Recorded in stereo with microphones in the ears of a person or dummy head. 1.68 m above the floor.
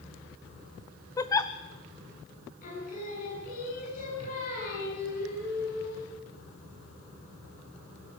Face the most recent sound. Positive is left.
turn(degrees=50)  # may be behind; listen again after turning